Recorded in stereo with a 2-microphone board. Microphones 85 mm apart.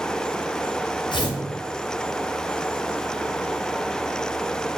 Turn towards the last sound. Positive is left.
turn(degrees=75)  # may be behind; listen again after turning